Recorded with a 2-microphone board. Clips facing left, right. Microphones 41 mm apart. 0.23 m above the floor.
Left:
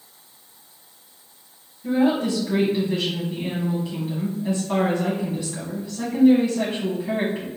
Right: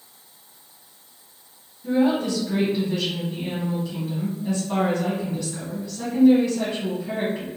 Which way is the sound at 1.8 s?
20° left (ahead or behind).